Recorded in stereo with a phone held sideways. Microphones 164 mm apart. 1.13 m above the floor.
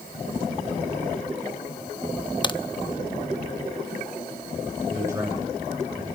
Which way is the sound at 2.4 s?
30° left (ahead or behind).